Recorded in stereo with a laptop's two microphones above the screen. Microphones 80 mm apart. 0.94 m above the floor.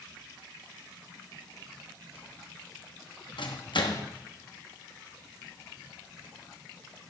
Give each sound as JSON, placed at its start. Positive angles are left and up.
{"t": 3.4, "sound": "a microwave", "side_deg": 75, "distance_m": 1.2}